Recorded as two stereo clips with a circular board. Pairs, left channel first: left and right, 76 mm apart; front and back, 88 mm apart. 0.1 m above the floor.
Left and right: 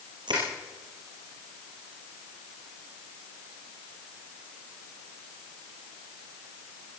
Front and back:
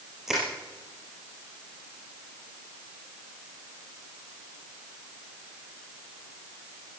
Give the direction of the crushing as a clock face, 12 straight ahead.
3 o'clock.